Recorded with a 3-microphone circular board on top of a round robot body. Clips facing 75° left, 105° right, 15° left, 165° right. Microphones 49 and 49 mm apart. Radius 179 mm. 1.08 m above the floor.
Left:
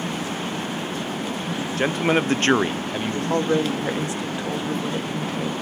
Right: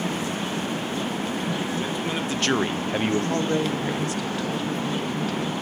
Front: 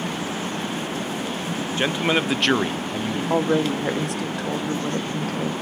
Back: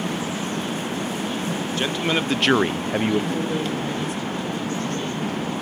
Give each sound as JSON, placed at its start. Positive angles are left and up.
{"t": 1.8, "sound": "a man speaking", "azimuth_deg": 80, "distance_m": 0.7}
{"t": 3.3, "sound": "a woman speaking", "azimuth_deg": 10, "distance_m": 1.0}